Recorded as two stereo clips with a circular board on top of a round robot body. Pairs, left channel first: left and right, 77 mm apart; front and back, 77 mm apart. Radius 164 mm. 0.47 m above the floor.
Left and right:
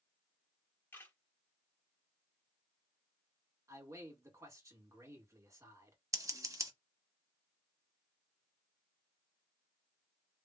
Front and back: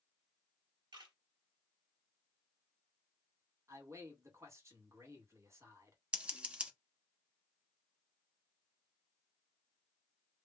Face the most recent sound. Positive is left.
turn(degrees=-110)